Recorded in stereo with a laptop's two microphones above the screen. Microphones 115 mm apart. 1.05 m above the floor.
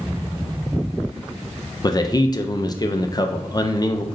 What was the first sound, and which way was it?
A man speaking, 35° left (ahead or behind).